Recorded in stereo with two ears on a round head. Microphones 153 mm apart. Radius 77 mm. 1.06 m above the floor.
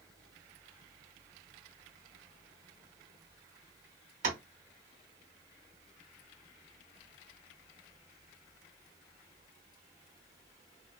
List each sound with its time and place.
4.2 s tapping: 50° right (ahead or behind), 1.0 m